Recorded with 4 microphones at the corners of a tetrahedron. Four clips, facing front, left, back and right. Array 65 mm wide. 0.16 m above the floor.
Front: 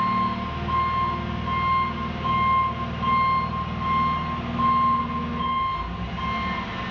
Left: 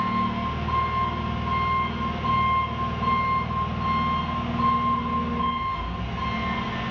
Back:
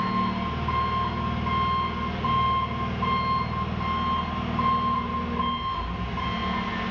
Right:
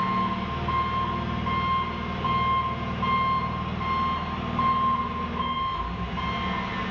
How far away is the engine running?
About 0.7 m.